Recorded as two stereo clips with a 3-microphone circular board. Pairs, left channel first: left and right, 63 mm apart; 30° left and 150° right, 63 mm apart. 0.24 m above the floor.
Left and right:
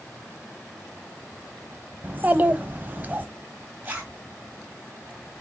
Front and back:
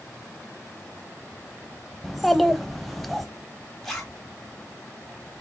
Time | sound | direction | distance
2.0 | a child speaking | 55° right | 0.5 m
3.8 | a zipper | 50° right | 1.3 m